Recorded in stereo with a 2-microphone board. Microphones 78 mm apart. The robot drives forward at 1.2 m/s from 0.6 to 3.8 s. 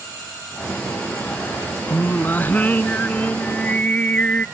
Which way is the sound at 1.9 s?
25° left (ahead or behind).